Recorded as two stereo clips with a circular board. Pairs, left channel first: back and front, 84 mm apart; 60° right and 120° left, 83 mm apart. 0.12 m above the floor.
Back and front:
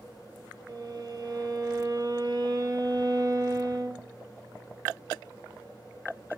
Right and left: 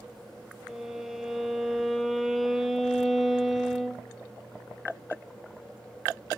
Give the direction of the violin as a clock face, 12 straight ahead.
11 o'clock.